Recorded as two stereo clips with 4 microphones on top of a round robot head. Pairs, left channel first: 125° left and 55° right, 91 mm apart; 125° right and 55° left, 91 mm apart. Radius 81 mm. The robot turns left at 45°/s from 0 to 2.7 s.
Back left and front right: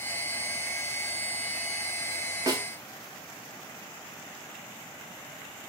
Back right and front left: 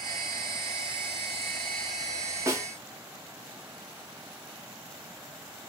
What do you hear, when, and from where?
2.5 s a snare drum: straight ahead, 1.6 m; by 2.6 s 10° right, 1.6 m